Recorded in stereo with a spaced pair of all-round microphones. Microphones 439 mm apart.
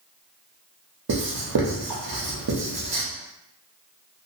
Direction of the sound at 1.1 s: 55° right (ahead or behind).